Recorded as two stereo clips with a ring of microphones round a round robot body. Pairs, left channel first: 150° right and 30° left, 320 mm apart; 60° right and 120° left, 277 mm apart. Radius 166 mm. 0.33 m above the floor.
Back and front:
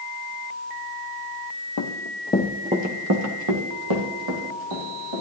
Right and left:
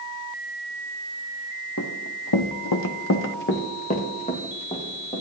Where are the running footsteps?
110° right, 1.3 m; by 5.2 s 15° left, 3.5 m.